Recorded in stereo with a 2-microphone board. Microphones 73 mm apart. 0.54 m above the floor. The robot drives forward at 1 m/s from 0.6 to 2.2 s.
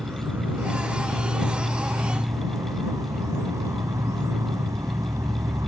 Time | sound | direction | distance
0.0 | an insect | 35° right (ahead or behind) | ?